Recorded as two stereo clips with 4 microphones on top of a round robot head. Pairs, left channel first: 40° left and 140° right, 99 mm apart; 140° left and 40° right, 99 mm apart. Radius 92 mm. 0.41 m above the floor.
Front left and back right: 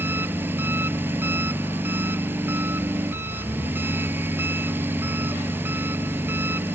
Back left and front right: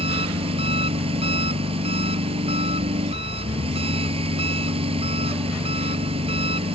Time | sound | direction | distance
0.0 | an engine running | 70° right | ?